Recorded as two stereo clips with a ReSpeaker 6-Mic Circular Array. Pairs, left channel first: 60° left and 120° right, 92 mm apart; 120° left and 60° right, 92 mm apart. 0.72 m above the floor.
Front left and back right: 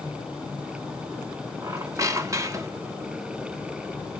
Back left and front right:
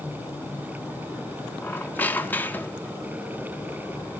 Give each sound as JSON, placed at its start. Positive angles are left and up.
{"t": 1.6, "sound": "a squeak", "azimuth_deg": -170, "distance_m": 1.0}